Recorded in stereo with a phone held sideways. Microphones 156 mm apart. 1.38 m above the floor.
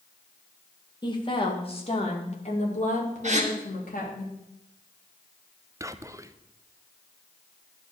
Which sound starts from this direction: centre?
Whispering, at 5.8 s.